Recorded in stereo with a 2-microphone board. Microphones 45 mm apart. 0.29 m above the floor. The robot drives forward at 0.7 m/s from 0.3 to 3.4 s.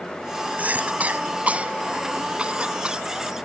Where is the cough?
35° right (ahead or behind); by 3.1 s 25° right (ahead or behind).